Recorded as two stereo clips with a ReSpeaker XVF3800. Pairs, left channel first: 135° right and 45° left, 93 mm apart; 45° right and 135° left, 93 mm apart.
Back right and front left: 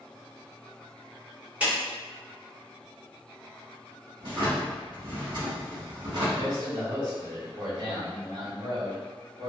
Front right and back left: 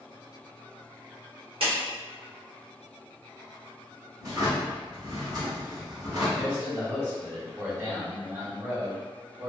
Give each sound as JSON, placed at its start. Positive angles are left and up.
{"t": 1.6, "sound": "a clap", "azimuth_deg": 120, "distance_m": 1.5}
{"t": 4.2, "sound": "a drawer", "azimuth_deg": 85, "distance_m": 1.2}
{"t": 6.3, "sound": "a man speaking", "azimuth_deg": 80, "distance_m": 1.5}